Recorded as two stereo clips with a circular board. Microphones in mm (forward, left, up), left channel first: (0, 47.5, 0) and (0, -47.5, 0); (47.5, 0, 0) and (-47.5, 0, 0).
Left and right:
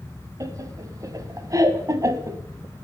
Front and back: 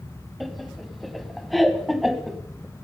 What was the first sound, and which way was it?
Laughter, 90° right.